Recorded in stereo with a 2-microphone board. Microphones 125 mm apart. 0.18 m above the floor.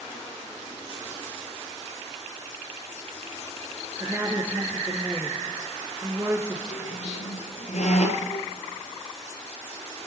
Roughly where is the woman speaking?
Right.